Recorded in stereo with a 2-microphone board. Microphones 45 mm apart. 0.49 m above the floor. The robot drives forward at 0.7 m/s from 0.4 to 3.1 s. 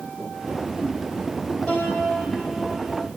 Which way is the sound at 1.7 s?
20° left (ahead or behind).